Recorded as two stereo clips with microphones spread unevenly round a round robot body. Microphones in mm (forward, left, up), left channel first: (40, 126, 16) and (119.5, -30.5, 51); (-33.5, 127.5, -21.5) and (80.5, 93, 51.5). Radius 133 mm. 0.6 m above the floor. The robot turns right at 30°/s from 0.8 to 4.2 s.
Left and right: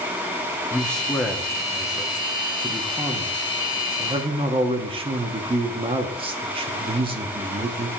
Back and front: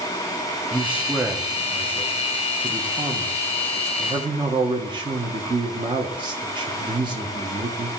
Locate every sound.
0.7 s a man speaking: 155° left, 0.8 m; by 7.9 s 105° right, 0.8 m